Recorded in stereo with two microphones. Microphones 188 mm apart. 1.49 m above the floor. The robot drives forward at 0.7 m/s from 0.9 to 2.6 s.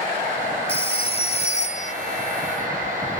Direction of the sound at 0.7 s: 30° left (ahead or behind).